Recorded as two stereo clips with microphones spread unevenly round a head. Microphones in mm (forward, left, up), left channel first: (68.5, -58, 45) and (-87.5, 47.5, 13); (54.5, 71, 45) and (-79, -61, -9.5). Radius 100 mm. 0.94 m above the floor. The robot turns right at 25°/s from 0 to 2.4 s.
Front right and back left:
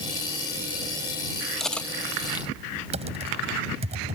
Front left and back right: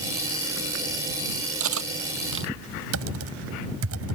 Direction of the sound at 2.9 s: 150° right.